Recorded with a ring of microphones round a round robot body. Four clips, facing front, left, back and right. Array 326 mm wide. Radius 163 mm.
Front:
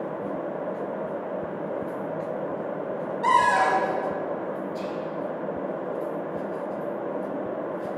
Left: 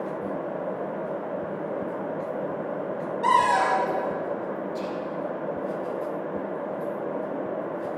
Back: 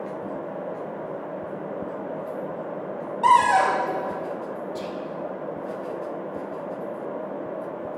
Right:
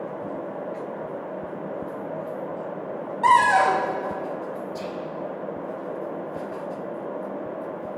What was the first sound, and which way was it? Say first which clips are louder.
A cupboard door: right 4 dB, back 3 dB; 135° right.